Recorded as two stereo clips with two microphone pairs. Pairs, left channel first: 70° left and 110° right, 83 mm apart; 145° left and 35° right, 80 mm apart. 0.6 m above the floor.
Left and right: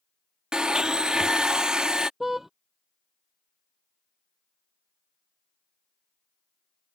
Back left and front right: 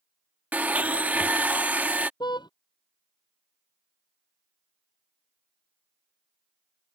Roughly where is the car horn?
Behind.